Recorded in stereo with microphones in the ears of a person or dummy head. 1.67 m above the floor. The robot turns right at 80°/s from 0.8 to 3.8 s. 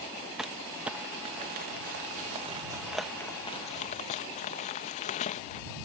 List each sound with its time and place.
0.4 s crumpling: 5° right (ahead or behind); by 5.6 s 40° left (ahead or behind)